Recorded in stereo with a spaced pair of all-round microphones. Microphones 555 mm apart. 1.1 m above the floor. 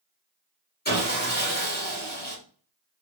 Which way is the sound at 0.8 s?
15° left (ahead or behind).